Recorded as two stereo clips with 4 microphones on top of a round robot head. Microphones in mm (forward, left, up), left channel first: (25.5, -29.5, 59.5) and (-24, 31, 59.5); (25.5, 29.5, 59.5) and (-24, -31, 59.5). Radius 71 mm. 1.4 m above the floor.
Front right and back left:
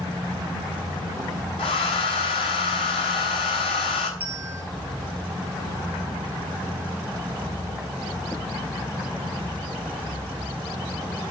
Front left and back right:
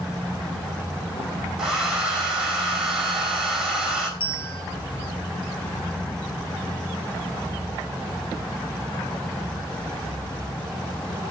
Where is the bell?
60° left, 1.9 m.